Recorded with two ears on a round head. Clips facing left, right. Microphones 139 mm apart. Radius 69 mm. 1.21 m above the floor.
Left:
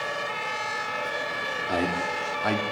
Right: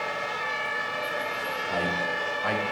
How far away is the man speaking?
About 3 m.